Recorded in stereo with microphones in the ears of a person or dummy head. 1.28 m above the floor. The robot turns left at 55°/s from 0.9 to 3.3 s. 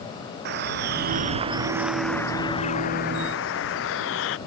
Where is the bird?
120° right; by 4.4 s 105° left.